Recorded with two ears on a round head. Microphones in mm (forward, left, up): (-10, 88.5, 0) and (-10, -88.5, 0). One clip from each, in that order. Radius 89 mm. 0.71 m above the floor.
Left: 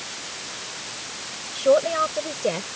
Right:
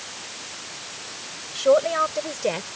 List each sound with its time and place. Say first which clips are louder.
1.6 s a man speaking: even; 25° right (ahead or behind)